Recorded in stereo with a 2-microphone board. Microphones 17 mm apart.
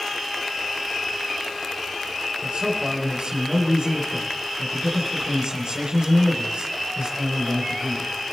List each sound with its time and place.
2.4 s a man speaking: 55° right (ahead or behind), 5.5 m